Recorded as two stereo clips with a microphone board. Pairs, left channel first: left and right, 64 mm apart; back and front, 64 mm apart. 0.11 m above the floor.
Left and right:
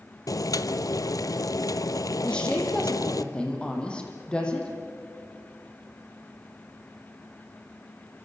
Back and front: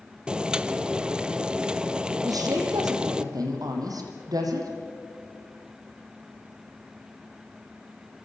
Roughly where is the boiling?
Left.